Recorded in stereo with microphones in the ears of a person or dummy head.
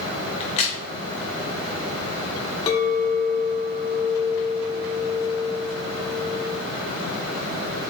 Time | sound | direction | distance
0.4 | a crack | 40° left (ahead or behind) | 1.0 m
2.7 | a clink | 30° left (ahead or behind) | 1.1 m